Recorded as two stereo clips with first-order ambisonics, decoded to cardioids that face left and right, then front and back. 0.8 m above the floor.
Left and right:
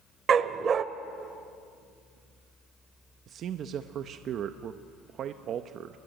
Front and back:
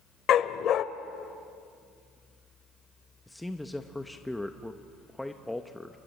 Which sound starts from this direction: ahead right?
A dog barking, at 0.3 s.